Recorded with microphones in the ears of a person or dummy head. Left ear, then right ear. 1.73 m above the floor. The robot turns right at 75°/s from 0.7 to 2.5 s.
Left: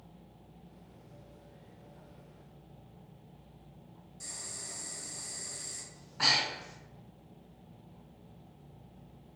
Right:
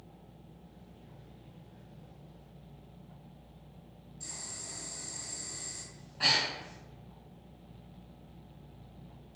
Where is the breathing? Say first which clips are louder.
Even; 55° left (ahead or behind), 0.8 m.